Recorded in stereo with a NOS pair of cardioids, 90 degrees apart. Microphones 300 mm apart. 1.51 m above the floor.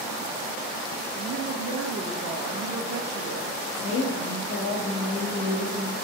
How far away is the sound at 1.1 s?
About 1.5 m.